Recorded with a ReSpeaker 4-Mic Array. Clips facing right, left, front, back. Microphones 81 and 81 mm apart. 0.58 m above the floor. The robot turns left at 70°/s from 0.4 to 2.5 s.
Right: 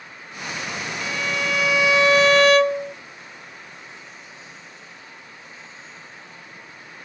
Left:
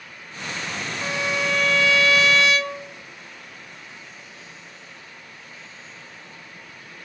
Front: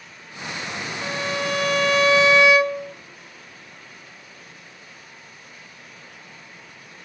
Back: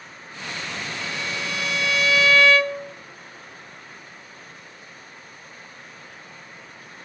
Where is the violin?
35° left, 0.6 m; by 3.0 s 70° right, 0.6 m.